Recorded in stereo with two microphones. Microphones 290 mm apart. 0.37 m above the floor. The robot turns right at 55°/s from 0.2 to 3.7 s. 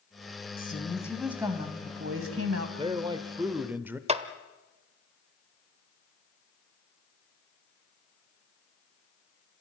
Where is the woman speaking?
145° left, 3 m; by 2.7 s 100° right, 3 m.